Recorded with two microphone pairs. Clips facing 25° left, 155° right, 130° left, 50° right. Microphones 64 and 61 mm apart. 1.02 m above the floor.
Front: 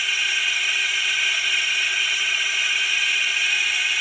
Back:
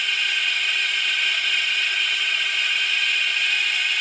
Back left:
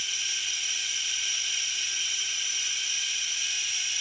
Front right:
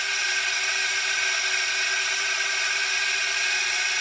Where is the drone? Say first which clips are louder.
Even, front right 10 dB; 55° right.